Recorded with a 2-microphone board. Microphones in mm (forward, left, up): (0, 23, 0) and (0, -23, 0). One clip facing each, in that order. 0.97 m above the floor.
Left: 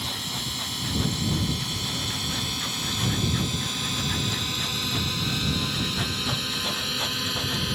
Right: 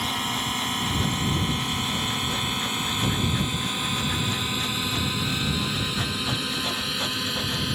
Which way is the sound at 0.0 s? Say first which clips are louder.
Right 5 dB; 40° right (ahead or behind).